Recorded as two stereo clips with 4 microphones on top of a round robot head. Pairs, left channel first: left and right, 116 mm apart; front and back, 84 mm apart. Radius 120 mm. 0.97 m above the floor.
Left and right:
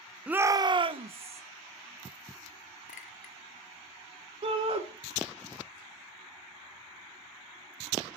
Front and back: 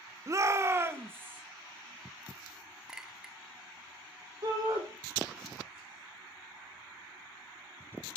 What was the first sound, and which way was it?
A shout, 165° right.